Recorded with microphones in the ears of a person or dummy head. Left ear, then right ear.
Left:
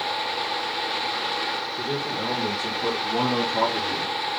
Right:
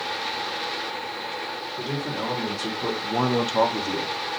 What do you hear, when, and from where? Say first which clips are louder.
1.8 s a man speaking: left 2 dB; 20° right (ahead or behind), 1.6 m; by 4.1 s 25° right (ahead or behind), 0.9 m